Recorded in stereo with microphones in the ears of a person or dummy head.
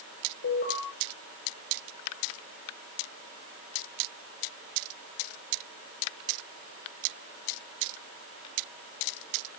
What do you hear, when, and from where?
0.4 s an alarm: 65° left (ahead or behind), 7 m